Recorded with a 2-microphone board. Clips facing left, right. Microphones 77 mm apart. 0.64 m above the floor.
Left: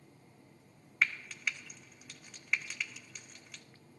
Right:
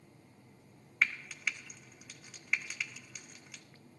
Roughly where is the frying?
Centre.